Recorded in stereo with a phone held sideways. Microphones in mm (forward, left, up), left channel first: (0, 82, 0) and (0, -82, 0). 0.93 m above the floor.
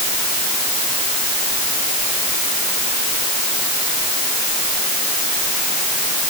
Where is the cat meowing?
I don't hear a cat meowing.